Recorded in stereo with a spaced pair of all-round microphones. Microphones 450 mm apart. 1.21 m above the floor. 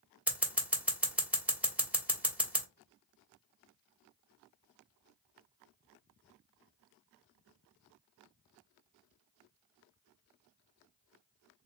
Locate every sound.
0.3 s scissors: 5° right (ahead or behind), 1.0 m